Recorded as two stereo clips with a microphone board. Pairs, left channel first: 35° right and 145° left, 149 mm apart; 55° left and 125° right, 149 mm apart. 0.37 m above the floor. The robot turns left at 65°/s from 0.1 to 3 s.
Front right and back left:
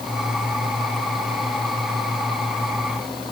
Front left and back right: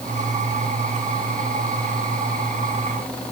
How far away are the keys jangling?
No keys jangling in this recording.